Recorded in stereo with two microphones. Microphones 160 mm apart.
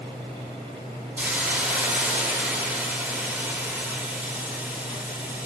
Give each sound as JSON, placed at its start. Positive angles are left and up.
{"t": 1.2, "sound": "a hiss", "side_deg": -10, "distance_m": 0.9}